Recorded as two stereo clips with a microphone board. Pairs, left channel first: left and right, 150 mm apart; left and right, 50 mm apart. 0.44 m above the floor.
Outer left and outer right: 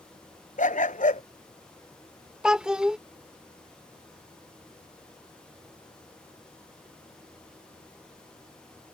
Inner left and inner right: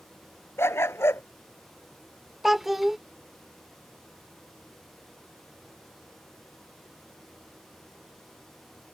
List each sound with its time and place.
0.6 s a dog barking: 60° left (ahead or behind)
2.4 s a child speaking: 5° right (ahead or behind)